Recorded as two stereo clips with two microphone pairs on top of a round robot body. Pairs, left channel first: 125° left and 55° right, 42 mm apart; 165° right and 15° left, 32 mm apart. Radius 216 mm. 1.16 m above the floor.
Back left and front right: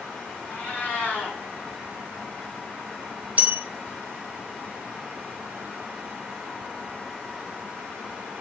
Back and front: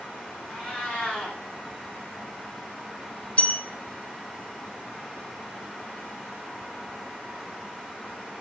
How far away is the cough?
I don't hear a cough.